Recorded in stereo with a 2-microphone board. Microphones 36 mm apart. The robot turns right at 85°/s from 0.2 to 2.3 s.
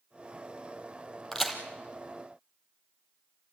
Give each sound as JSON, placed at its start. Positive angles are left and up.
{"t": 1.3, "sound": "a crack", "side_deg": 10, "distance_m": 3.0}